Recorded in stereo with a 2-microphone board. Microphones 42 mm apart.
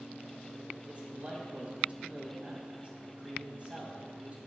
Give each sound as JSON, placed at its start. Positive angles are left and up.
{"t": 0.8, "sound": "a man speaking", "side_deg": -35, "distance_m": 1.9}